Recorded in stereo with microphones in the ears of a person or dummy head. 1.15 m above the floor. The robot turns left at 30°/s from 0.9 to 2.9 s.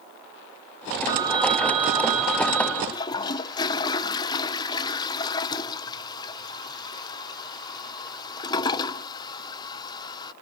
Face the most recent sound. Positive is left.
turn(degrees=25)  # may be behind; listen again after turning